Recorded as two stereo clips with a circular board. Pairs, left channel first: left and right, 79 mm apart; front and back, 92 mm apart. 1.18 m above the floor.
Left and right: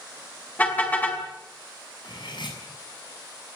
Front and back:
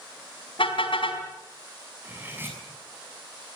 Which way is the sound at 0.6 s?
20° left.